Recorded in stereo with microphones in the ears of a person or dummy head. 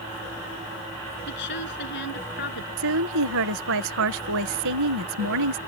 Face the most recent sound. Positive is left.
turn(degrees=-70)  # may be behind; listen again after turning